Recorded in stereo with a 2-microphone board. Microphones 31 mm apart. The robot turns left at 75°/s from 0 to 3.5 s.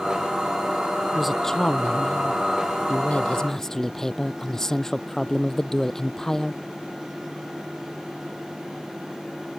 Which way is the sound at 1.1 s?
170° right.